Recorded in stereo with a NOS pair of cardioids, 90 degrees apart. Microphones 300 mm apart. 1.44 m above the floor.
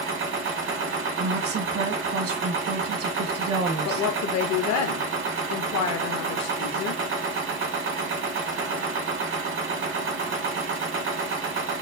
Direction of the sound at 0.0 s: 40° right.